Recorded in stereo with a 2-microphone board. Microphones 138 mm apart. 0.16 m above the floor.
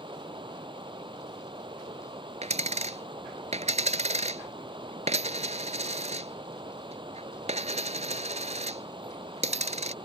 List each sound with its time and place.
0.0 s running water: 35° right (ahead or behind)
2.4 s a dropped coin: 55° right (ahead or behind)